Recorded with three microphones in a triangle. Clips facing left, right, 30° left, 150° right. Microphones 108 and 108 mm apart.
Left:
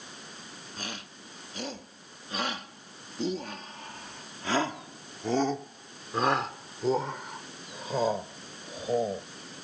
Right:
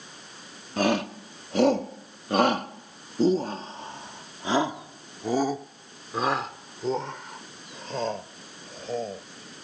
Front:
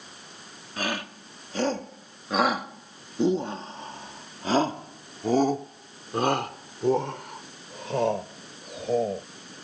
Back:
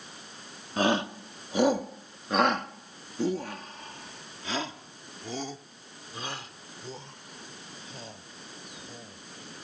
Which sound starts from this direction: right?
A shout, at 0.8 s.